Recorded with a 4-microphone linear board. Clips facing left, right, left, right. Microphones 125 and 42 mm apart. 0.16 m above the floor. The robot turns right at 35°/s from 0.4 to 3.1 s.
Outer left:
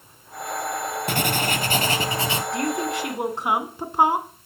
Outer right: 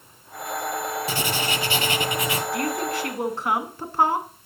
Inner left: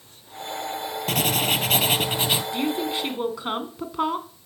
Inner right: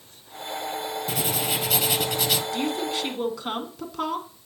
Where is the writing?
105° left, 0.9 m; by 2.4 s 150° left, 0.9 m.